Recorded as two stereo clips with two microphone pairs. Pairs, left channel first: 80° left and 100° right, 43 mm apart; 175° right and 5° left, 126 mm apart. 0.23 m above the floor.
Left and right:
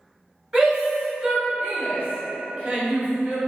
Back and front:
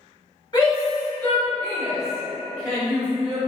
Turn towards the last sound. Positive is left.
turn(degrees=-55)